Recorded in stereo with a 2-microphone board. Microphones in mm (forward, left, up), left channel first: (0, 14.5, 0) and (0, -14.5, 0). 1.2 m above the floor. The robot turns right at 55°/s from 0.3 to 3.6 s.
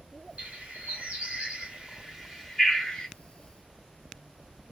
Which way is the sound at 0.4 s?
55° right (ahead or behind).